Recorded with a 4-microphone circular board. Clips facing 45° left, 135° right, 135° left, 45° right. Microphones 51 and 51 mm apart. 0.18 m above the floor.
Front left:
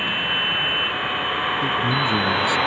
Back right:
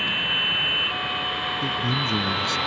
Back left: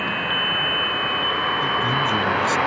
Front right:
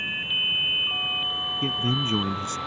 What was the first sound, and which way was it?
A vehicle, 120° left.